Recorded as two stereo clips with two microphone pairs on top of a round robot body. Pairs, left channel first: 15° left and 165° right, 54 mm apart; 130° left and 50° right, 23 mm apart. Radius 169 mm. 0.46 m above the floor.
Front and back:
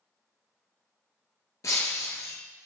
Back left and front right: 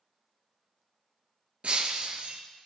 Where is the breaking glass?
10° right, 1.3 m.